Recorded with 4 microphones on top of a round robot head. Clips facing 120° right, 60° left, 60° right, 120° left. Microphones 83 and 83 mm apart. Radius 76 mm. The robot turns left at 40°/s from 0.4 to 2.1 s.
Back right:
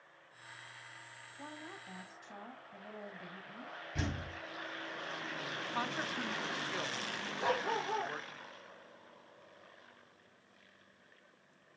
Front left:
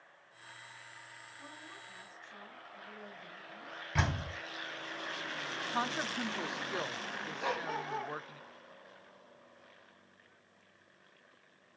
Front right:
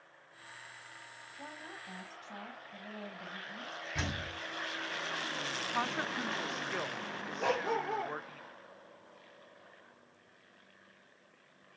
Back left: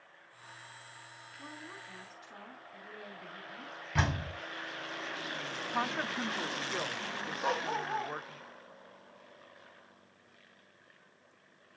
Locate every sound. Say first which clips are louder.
1.4 s a woman speaking: back right 4 dB, even; 80° right, 3.5 m; by 3.8 s 105° right, 3.5 m
4.0 s a door slam: front left 6 dB, back left 7 dB; 80° left, 2 m
5.7 s a woman speaking: front left 3 dB, back left 2 dB; 35° left, 0.8 m
7.4 s a dog barking: back right 3 dB, front right 2 dB; 60° right, 2.5 m